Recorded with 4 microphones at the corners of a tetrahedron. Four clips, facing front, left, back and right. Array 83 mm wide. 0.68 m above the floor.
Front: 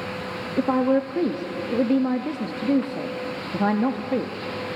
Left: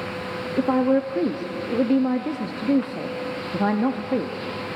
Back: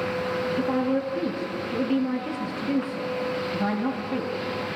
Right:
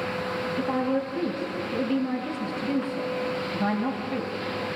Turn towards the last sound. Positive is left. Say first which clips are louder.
# left 8 dB, front 7 dB
turn(degrees=50)